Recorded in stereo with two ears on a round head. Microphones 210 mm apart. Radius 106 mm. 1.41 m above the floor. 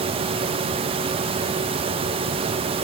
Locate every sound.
Only background noise.